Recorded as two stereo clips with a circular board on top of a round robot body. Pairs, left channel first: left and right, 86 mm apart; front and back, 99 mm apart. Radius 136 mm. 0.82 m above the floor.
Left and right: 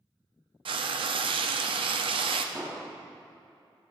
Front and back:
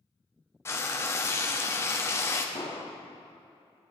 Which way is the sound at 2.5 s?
20° right.